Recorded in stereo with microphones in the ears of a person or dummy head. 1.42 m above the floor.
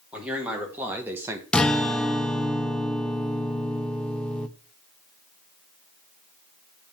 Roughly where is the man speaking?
Centre.